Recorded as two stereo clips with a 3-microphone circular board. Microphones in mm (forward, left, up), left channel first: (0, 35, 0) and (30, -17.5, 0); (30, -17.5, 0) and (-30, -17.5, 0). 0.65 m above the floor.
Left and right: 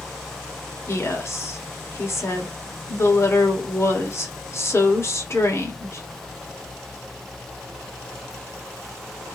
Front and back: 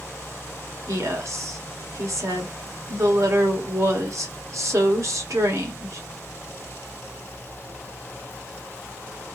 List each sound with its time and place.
0.9 s a woman speaking: 160° left, 1.7 m